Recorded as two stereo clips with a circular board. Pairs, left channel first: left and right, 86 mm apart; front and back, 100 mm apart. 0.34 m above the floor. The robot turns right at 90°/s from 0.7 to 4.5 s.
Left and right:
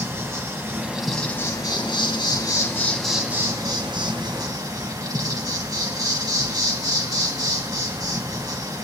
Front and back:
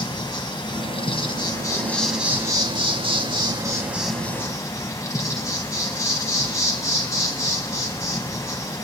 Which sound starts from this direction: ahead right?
An insect, at 0.0 s.